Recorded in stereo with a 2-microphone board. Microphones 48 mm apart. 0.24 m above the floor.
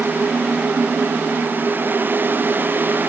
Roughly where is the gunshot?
No gunshot in this recording.